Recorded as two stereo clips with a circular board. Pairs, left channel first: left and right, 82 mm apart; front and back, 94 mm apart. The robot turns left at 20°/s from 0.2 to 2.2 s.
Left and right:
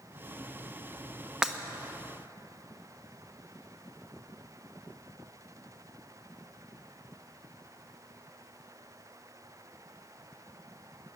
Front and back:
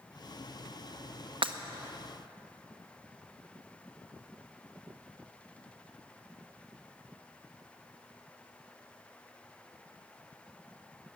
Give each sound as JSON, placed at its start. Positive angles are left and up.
{"t": 1.4, "sound": "breaking glass", "azimuth_deg": -170, "distance_m": 0.9}